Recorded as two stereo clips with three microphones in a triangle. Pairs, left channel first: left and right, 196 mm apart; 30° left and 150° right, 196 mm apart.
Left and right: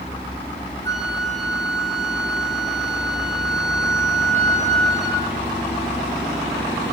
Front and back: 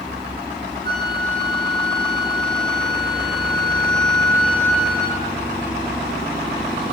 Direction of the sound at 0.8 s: 115° right.